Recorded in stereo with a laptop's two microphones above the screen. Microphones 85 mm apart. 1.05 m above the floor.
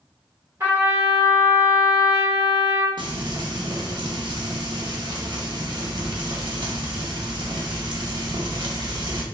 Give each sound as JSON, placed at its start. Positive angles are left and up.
{"t": 0.6, "sound": "a trumpet", "side_deg": -35, "distance_m": 1.4}
{"t": 3.0, "sound": "frying", "side_deg": -65, "distance_m": 0.6}